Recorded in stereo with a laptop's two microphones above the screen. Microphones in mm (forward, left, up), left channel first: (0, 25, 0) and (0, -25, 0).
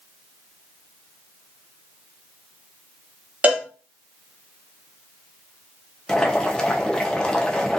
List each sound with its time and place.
3.4 s a cowbell: 30° right (ahead or behind), 0.7 m
6.1 s boiling: 15° left (ahead or behind), 0.5 m